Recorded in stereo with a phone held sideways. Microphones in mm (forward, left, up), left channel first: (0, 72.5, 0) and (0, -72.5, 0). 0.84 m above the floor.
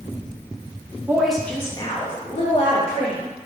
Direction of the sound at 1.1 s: 15° right (ahead or behind).